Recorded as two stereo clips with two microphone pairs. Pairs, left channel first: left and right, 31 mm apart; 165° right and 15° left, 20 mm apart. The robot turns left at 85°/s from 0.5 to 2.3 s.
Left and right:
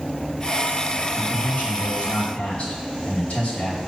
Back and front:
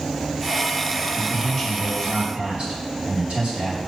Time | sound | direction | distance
1.1 | a man speaking | 135° left | 2.5 m